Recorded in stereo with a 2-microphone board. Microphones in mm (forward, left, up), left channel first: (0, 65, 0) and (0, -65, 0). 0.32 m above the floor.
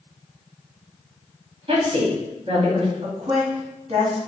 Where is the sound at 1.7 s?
50° right (ahead or behind), 2.0 m.